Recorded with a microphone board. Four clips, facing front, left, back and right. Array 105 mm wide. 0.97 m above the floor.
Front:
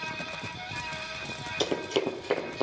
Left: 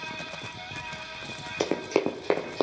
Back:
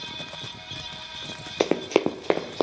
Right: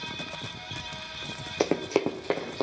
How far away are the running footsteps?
About 1.3 m.